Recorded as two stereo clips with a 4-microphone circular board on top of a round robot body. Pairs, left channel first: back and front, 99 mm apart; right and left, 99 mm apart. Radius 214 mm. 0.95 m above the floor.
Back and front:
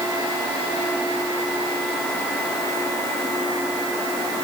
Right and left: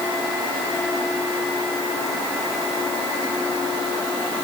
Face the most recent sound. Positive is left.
No sound to turn to.